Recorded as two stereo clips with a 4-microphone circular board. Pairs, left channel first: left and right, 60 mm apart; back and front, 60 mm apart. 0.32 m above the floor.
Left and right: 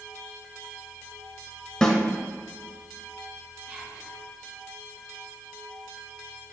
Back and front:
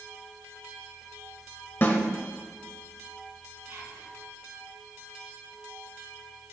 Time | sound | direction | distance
1.8 | a snare drum | 160° left | 1.1 m
3.7 | whispering | 20° right | 2.5 m